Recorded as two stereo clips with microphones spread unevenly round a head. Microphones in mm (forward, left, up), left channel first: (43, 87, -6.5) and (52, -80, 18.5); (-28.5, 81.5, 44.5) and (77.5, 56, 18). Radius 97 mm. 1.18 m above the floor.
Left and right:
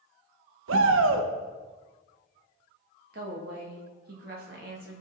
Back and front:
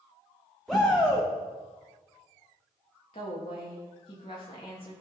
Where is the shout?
100° right, 0.7 m.